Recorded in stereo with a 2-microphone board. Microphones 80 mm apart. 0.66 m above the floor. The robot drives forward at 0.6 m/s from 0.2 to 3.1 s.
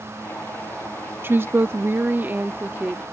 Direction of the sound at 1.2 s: 30° right (ahead or behind).